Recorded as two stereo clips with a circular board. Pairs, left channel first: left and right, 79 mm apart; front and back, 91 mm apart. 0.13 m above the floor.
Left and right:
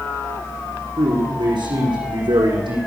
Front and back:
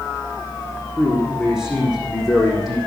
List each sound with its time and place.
1.0 s a man speaking: 95° right, 7.5 m; by 2.8 s 90° right, 6.5 m